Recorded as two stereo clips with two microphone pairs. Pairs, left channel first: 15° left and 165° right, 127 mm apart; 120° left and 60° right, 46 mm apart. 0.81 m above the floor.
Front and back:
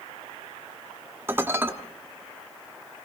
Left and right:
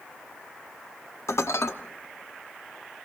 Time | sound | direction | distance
1.3 | dishes clattering | 120° left | 0.8 m